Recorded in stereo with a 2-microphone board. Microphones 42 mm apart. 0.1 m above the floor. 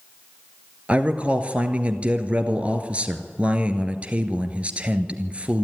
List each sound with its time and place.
0.9 s a man speaking: 30° right (ahead or behind), 1.7 m